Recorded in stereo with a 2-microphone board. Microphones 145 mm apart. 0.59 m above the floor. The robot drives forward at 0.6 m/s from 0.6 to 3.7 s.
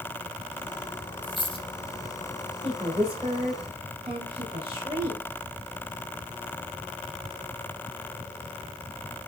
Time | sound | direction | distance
1.2 | a dropped coin | 30° left (ahead or behind) | 1.3 m
2.6 | a woman speaking | 40° right (ahead or behind) | 2 m